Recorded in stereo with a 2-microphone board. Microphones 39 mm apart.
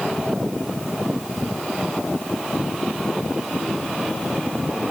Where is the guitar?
I don't hear a guitar.